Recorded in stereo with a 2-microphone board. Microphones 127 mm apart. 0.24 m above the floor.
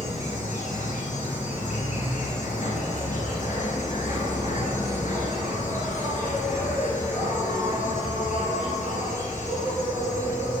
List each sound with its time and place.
0.0 s an insect: 80° left, 1.7 m